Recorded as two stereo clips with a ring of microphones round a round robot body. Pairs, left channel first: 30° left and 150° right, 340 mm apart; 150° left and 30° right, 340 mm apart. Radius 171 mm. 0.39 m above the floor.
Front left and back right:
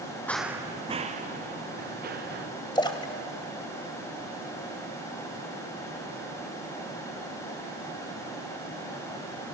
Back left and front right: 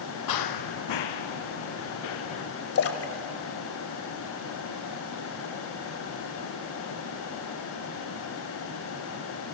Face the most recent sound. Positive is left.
turn(degrees=105)